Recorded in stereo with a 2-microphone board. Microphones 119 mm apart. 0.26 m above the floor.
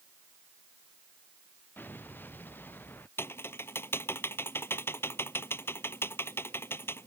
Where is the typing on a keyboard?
20° left (ahead or behind).